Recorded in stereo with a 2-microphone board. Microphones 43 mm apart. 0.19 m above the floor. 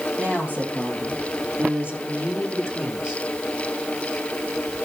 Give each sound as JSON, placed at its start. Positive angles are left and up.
{"t": 0.2, "sound": "a woman speaking", "side_deg": -50, "distance_m": 7.0}